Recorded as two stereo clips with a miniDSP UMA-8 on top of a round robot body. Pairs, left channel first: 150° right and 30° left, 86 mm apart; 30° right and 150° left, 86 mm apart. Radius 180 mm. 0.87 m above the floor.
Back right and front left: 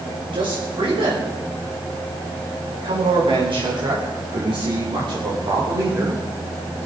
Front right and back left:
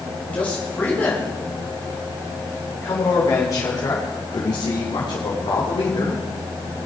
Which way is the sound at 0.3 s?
45° left.